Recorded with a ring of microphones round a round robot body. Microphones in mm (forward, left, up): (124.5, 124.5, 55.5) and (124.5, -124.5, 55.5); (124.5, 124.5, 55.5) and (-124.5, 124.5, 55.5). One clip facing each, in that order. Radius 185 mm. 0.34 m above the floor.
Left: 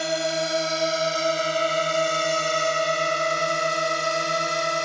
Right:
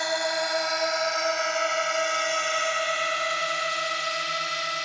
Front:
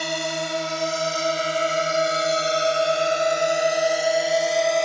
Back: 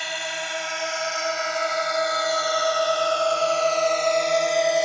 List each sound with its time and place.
0.0 s a drone: 35° left; by 4.8 s 95° left